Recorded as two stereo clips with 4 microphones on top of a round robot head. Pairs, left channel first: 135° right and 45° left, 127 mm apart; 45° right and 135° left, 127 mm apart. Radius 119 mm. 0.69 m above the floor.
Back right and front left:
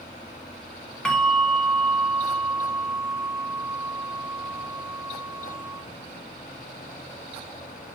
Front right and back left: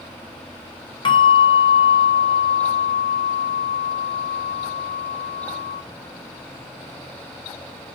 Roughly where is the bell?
Ahead right.